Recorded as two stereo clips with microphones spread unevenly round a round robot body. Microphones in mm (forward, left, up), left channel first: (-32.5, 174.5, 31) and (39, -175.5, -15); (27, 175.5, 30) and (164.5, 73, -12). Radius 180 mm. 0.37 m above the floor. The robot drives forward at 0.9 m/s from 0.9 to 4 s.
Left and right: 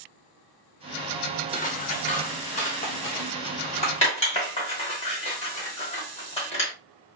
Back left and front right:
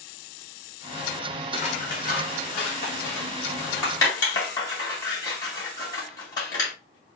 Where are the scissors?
155° left, 1.1 m; by 6.7 s 175° left, 3 m.